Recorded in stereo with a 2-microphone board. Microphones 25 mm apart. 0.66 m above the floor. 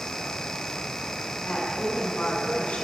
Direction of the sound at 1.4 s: 55° left (ahead or behind).